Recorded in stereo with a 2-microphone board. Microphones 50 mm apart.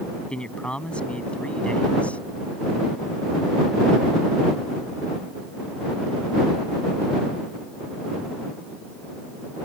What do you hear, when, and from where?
0.3 s a man speaking: 20° left (ahead or behind); by 2.2 s 25° left (ahead or behind)